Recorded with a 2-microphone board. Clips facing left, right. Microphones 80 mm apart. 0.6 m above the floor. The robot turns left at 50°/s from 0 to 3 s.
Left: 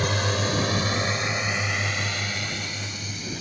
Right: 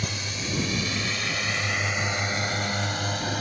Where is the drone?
60° left (ahead or behind); by 3.4 s 60° right (ahead or behind).